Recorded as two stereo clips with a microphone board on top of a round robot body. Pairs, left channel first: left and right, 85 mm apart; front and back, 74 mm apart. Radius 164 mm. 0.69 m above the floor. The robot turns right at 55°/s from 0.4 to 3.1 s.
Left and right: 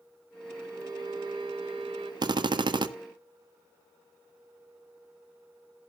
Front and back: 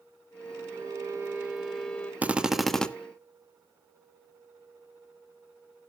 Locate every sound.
0.7 s a violin: 150° right, 2.5 m; by 2.1 s 70° right, 2.5 m
2.2 s a drill: 115° right, 1.5 m; by 2.9 s 75° right, 1.5 m